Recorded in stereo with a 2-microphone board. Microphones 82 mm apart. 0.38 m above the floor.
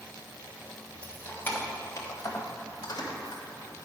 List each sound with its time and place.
1.0 s keys jangling: 15° left (ahead or behind), 1.7 m; by 3.4 s 65° left (ahead or behind), 1.7 m